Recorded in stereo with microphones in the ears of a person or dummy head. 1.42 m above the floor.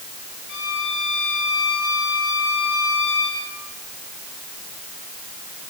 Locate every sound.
0.5 s a violin: 75° left (ahead or behind), 7 m